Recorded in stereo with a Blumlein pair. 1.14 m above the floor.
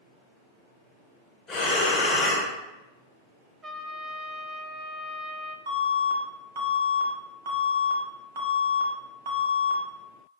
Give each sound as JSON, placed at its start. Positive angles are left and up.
{"t": 1.5, "sound": "breathing", "azimuth_deg": 20, "distance_m": 1.0}
{"t": 3.6, "sound": "a trumpet", "azimuth_deg": -15, "distance_m": 0.6}
{"t": 5.7, "sound": "an alarm", "azimuth_deg": -60, "distance_m": 1.1}